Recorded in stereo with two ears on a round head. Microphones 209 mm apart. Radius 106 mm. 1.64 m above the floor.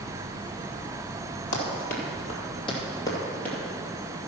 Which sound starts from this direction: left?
Running footsteps, at 1.5 s.